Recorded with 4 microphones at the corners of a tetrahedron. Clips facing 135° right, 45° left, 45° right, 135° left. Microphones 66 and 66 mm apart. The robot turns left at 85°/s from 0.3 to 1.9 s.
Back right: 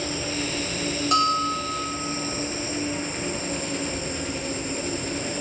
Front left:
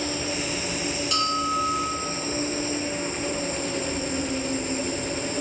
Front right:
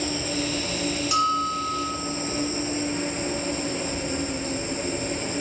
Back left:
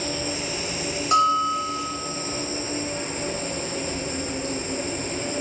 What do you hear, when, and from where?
0.0 s an insect: 105° left, 1.9 m; by 5.4 s 35° right, 1.9 m
1.1 s a bell: 175° left, 0.6 m; by 1.9 s 110° left, 0.6 m